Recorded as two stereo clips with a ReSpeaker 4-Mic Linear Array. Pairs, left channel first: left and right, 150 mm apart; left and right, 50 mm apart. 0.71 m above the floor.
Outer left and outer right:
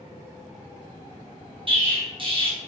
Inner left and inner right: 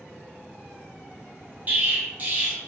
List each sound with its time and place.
1.7 s an explosion: 35° right (ahead or behind), 0.7 m